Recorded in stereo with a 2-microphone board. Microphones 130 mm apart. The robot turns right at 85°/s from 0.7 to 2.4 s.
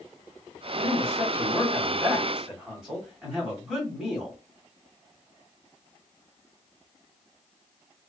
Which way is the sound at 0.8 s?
15° right (ahead or behind).